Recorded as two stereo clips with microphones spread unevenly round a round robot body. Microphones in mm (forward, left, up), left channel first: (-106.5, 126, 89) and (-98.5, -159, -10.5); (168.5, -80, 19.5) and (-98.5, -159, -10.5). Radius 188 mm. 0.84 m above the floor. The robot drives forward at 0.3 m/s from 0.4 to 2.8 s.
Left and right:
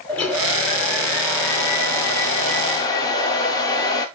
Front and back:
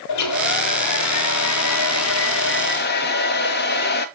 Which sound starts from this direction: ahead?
A hair dryer, at 0.1 s.